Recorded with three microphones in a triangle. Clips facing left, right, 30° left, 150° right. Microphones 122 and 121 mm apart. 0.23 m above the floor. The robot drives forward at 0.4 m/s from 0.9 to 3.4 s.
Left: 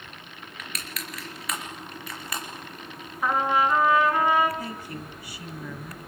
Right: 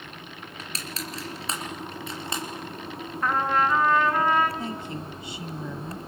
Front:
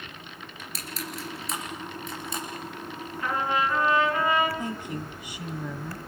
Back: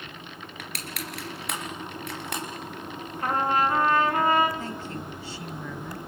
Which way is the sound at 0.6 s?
145° right.